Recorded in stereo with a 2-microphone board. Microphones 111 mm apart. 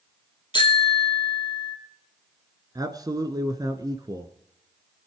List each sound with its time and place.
0.5 s a bicycle bell: 45° left (ahead or behind), 2.5 m
2.8 s a man speaking: 35° right (ahead or behind), 1.5 m